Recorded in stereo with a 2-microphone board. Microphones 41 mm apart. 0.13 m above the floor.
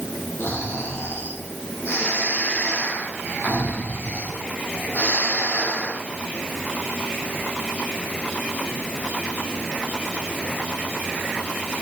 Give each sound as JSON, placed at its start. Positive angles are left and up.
{"t": 0.4, "sound": "snoring", "side_deg": 75, "distance_m": 3.0}